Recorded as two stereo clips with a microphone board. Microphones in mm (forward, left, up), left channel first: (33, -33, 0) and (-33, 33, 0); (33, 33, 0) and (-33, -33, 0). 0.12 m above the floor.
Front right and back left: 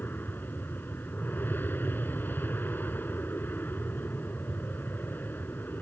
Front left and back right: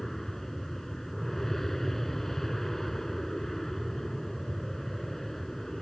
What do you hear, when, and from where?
0.0 s an aircraft: 35° right